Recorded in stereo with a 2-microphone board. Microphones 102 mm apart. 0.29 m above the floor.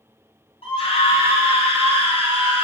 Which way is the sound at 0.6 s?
65° left (ahead or behind).